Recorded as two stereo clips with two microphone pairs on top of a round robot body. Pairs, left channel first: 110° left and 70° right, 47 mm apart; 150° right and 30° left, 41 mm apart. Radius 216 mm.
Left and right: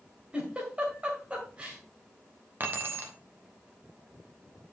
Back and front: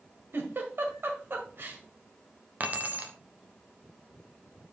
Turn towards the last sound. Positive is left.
turn(degrees=-25)